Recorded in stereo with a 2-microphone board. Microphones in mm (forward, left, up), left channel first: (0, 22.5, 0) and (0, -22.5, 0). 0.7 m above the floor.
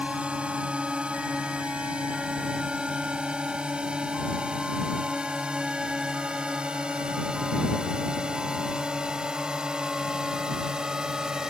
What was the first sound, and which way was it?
A drone, 25° right (ahead or behind).